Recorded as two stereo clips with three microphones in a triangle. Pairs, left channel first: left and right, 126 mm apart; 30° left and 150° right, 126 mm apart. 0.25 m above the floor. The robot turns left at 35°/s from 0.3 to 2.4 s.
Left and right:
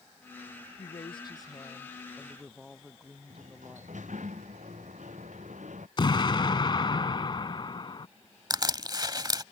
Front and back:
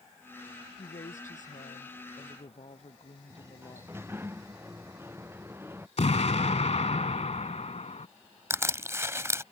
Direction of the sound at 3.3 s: 80° right.